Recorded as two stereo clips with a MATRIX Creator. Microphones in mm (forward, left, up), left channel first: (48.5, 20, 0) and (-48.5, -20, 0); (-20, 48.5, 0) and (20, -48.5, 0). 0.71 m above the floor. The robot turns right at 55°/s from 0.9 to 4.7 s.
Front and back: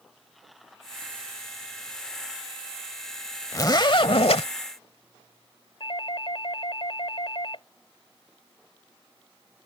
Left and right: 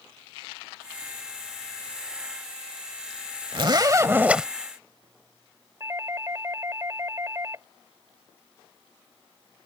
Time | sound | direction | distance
3.5 | a zipper | 35° right | ?
5.8 | a doorbell | 5° right | ?